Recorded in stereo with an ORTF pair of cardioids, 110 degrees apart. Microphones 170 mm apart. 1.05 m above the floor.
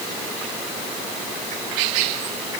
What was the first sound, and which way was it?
Only background noise.